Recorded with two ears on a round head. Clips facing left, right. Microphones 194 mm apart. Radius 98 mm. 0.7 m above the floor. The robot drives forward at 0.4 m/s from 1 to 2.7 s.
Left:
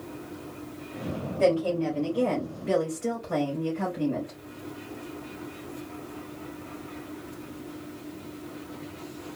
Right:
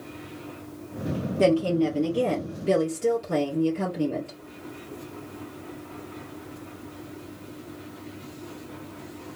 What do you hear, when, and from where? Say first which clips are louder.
1.4 s a woman speaking: right 3 dB; 55° right (ahead or behind), 2 m; by 4.4 s 50° right (ahead or behind), 2.5 m